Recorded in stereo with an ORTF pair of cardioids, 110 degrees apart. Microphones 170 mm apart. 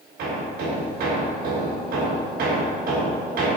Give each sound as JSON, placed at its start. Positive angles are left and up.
{"t": 0.2, "sound": "hammering", "azimuth_deg": -70, "distance_m": 3.5}